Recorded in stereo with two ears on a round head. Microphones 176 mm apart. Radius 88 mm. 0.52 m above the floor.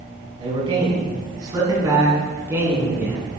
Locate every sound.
0.4 s a man speaking: 30° right (ahead or behind), 4.5 m; by 3.3 s 10° right (ahead or behind), 5.5 m